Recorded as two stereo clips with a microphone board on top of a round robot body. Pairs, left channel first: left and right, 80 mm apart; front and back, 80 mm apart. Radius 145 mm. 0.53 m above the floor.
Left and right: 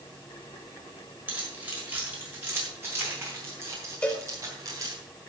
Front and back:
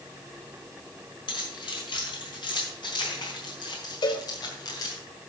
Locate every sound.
1.3 s keys jangling: 25° right, 5.5 m; by 5.0 s 40° right, 3.5 m
4.0 s a cowbell: 15° left, 3 m